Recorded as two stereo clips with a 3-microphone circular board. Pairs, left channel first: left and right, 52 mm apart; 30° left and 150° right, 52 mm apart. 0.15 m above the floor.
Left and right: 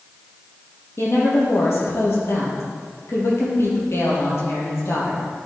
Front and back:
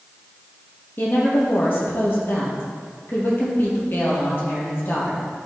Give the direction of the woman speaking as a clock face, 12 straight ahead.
10 o'clock.